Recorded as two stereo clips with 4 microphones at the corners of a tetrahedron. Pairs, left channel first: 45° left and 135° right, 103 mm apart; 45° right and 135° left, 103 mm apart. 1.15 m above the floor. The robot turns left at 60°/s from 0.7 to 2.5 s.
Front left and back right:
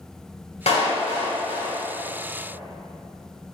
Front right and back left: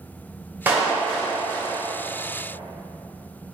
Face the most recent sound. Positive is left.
turn(degrees=-45)